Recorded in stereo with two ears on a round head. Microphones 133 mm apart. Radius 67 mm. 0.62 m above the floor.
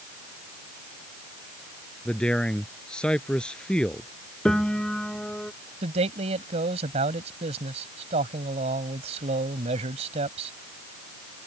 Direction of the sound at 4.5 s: 5° left (ahead or behind).